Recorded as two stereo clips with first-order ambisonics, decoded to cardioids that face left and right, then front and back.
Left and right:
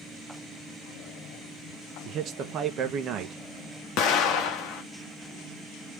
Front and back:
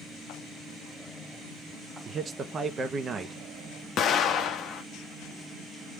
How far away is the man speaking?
About 0.9 m.